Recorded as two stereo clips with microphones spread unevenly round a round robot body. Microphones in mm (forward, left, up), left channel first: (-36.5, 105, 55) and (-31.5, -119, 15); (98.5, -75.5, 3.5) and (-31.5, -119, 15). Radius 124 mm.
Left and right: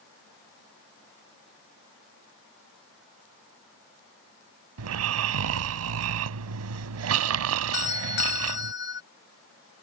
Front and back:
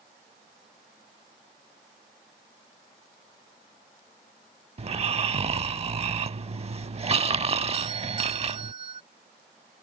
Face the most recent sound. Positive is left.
turn(degrees=130)